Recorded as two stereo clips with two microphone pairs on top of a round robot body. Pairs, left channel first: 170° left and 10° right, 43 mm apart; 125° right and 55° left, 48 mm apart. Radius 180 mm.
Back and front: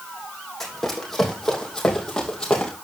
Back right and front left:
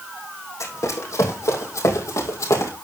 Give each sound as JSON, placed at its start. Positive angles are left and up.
{"t": 0.6, "sound": "running footsteps", "azimuth_deg": -110, "distance_m": 3.5}